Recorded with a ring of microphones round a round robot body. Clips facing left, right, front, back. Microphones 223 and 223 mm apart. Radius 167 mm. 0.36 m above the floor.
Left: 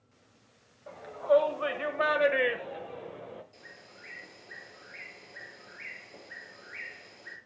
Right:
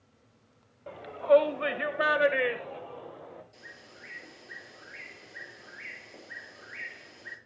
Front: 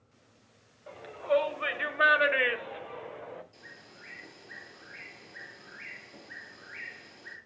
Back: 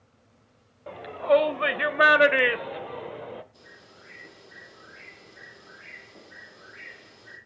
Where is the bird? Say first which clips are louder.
Right 1 dB, back 2 dB; 5° right, 7.5 m.